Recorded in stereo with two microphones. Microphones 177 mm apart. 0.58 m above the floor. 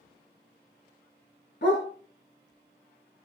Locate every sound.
1.6 s a dog barking: 85° left, 2.5 m